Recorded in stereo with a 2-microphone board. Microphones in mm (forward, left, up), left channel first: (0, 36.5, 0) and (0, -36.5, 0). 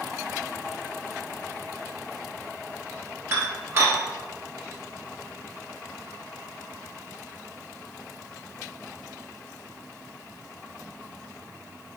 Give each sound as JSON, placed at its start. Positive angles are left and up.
{"t": 3.3, "sound": "dishes clattering", "side_deg": -40, "distance_m": 1.5}